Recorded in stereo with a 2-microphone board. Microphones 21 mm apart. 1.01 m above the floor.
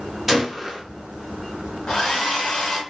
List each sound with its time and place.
0.3 s a gunshot: 10° right (ahead or behind), 0.8 m
1.9 s a hair dryer: 45° left (ahead or behind), 0.9 m